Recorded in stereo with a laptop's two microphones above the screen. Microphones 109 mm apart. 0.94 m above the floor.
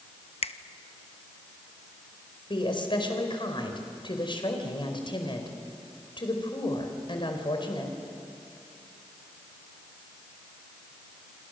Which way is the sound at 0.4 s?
65° left (ahead or behind).